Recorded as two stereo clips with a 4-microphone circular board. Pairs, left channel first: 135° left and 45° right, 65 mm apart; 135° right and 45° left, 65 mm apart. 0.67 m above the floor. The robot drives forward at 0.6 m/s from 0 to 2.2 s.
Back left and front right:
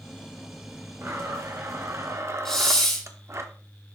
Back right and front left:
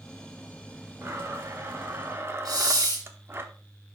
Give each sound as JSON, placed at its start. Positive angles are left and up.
{"t": 1.0, "sound": "a blender", "azimuth_deg": -5, "distance_m": 1.5}
{"t": 2.5, "sound": "a hiss", "azimuth_deg": 50, "distance_m": 2.0}